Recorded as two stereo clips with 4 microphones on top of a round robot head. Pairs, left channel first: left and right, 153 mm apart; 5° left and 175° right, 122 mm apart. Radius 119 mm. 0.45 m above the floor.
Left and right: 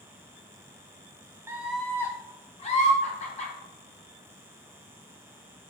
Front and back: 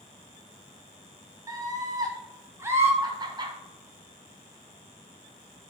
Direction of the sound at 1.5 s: 145° right.